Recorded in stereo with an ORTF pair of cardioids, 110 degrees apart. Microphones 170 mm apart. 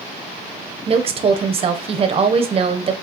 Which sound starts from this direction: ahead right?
A woman speaking, at 0.9 s.